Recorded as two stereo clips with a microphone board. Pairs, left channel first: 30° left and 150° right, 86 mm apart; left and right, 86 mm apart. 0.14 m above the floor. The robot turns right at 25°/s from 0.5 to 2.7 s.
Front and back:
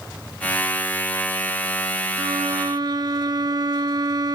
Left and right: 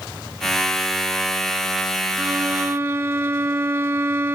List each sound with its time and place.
2.2 s a violin: 155° right, 0.5 m; by 4.3 s 145° right, 0.5 m